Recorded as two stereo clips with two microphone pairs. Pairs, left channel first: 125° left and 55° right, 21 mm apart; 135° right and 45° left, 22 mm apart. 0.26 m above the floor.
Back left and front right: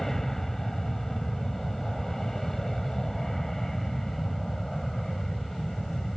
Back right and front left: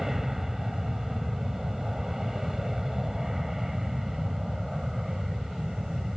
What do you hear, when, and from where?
0.0 s an aircraft: 95° left